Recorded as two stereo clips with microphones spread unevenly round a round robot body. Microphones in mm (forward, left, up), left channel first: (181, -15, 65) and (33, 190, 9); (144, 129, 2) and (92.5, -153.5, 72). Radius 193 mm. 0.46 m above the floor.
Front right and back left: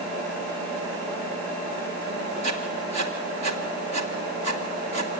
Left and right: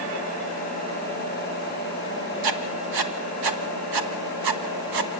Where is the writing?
130° right, 1.4 m.